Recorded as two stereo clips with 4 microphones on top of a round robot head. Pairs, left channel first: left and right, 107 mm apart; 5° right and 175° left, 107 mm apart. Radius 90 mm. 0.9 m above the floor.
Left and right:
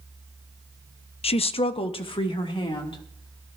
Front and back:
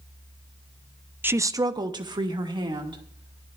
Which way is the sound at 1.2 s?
105° left.